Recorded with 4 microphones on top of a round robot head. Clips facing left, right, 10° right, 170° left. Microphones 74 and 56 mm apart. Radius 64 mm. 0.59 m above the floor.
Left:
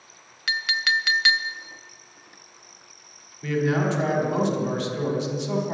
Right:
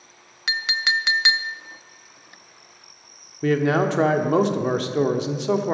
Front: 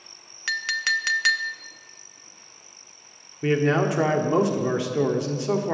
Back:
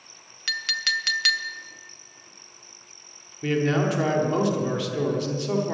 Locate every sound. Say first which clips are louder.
0.5 s a clink: even, front 3 dB; 50° right, 0.6 m
3.4 s a man speaking: right 4 dB, front 2 dB; 75° right, 1.2 m